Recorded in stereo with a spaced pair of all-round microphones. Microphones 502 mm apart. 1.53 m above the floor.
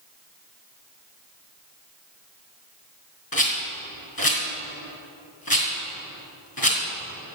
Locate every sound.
3.3 s a rattle: 45° left (ahead or behind), 4 m